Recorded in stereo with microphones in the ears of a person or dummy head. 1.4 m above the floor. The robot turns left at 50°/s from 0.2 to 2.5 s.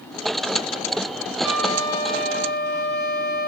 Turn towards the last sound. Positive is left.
turn(degrees=135)